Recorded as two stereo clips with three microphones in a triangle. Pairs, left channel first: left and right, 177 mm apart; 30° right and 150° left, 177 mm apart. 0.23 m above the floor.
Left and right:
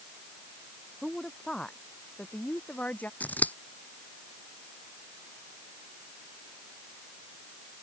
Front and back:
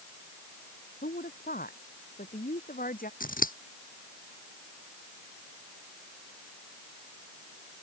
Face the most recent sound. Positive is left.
turn(degrees=10)